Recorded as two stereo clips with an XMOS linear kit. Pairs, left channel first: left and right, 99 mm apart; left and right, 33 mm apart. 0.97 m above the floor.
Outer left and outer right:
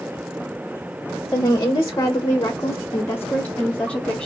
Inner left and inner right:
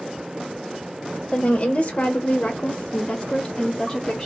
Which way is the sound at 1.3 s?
35° left (ahead or behind).